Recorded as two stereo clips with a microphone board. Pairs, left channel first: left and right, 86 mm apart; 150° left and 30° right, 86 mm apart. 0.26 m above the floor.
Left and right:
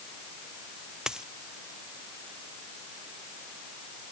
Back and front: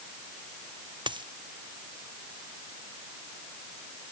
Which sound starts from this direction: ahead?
A dropped coin, at 1.1 s.